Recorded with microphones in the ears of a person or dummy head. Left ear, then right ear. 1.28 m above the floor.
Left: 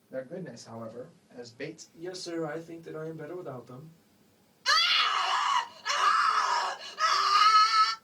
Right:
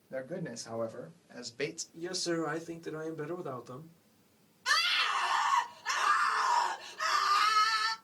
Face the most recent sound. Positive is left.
turn(degrees=25)  # may be behind; listen again after turning